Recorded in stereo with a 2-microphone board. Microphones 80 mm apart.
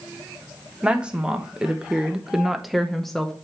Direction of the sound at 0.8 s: 10° right (ahead or behind).